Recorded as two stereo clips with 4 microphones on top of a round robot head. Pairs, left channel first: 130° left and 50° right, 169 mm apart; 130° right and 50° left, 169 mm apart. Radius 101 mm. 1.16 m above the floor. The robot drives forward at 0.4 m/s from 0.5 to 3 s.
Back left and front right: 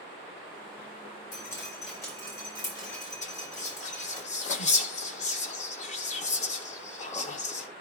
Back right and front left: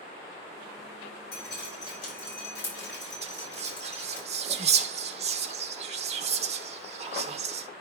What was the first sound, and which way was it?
Dripping, 155° right.